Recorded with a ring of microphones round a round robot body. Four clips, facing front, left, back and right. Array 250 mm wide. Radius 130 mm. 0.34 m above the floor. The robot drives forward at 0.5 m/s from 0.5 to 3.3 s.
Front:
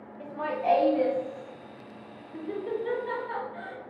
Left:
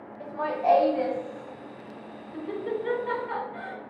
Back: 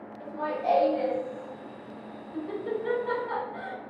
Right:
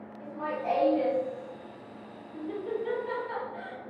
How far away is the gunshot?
No gunshot in this recording.